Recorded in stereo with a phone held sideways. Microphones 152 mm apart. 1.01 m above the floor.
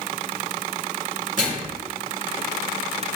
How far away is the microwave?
About 1.5 m.